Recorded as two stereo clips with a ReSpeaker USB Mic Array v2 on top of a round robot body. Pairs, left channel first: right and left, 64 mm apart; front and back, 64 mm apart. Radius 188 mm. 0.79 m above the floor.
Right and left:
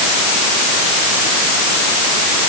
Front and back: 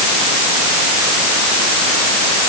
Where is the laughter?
I don't hear laughter.